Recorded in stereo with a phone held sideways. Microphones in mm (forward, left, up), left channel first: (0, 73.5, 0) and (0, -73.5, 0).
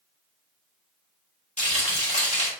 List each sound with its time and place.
1.6 s frying: 50° left (ahead or behind), 1.5 m